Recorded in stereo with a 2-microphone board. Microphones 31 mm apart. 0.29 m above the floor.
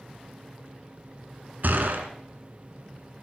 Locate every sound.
1.6 s a gunshot: 75° right (ahead or behind), 1.2 m